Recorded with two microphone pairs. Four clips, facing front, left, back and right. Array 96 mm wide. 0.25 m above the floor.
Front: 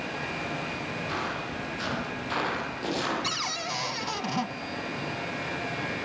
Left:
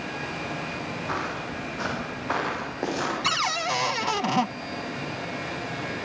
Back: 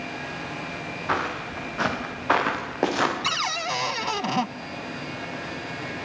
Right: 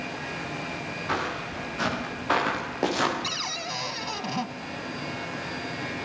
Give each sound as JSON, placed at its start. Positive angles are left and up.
{"t": 1.1, "sound": "footsteps", "azimuth_deg": 180, "distance_m": 8.0}
{"t": 3.2, "sound": "a cupboard door", "azimuth_deg": 120, "distance_m": 0.6}